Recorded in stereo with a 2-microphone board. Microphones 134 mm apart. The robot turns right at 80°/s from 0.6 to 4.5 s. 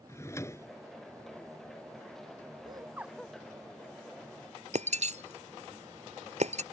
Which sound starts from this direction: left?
A drawer, at 0.1 s.